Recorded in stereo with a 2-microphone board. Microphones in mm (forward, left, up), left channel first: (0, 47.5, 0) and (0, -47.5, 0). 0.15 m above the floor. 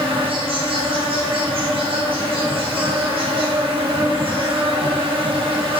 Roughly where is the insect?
Right.